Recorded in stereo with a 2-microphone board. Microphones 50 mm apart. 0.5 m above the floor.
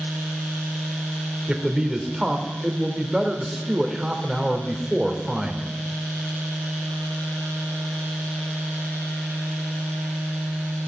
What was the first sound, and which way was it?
A man speaking, 10° right (ahead or behind).